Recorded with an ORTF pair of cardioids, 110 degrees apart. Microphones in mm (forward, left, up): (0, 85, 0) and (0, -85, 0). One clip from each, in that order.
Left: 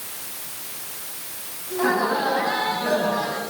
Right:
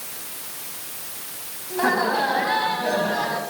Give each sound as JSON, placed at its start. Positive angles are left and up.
{"t": 1.7, "sound": "laughter", "azimuth_deg": -35, "distance_m": 8.5}